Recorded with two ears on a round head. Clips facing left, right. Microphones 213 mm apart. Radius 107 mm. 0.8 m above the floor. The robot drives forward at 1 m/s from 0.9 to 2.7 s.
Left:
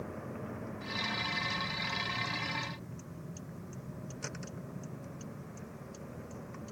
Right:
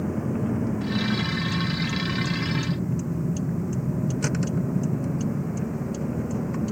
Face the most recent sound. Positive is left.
turn(degrees=-75)  # may be behind; listen again after turning